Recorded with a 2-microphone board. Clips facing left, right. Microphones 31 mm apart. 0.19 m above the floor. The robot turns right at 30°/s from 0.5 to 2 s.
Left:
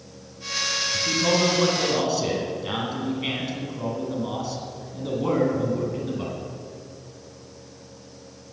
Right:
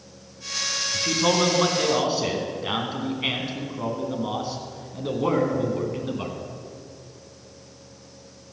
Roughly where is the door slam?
I don't hear a door slam.